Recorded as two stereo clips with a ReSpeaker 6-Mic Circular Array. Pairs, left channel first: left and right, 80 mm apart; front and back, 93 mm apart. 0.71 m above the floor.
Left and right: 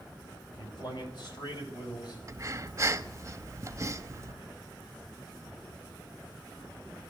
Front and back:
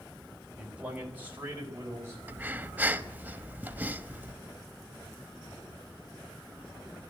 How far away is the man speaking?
About 3.5 m.